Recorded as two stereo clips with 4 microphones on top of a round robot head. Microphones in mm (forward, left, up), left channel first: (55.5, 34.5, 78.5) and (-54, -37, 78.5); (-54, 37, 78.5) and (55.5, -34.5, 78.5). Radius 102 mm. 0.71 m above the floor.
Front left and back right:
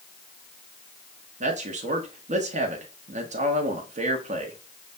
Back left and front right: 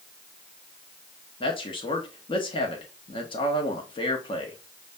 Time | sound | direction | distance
1.4 | a man speaking | 165° right | 1.1 m